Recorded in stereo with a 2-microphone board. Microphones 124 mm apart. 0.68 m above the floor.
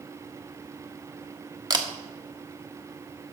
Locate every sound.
1.7 s a camera shutter: 30° right (ahead or behind), 1.1 m